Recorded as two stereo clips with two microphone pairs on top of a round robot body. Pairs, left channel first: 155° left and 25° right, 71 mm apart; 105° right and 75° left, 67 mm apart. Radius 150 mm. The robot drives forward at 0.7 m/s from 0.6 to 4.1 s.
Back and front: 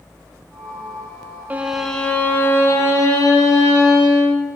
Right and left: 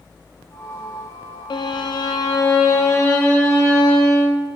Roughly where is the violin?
Right.